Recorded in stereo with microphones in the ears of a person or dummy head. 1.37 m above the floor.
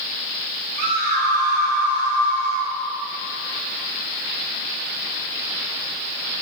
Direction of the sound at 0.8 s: 55° right (ahead or behind).